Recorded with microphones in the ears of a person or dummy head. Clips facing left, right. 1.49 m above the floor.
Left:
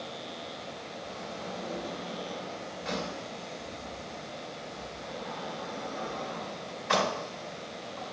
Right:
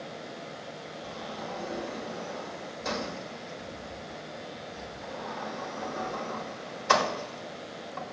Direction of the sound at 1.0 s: 55° right (ahead or behind).